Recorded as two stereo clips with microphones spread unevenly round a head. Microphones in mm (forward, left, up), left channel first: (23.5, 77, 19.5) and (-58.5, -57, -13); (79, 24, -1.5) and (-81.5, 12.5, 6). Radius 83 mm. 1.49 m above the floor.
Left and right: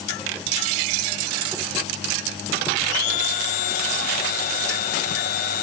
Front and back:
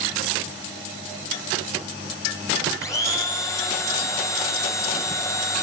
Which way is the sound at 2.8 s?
75° left.